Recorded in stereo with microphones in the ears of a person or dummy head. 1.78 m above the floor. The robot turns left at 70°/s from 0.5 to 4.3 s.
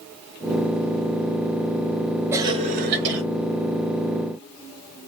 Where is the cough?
20° right, 0.9 m; by 3.2 s 80° right, 0.9 m.